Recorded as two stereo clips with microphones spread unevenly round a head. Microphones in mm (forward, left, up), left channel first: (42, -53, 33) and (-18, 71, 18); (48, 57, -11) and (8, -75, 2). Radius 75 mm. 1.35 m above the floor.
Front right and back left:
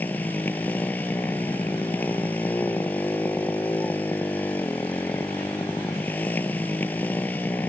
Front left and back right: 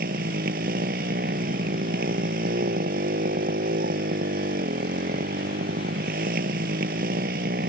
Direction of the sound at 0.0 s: 140° right.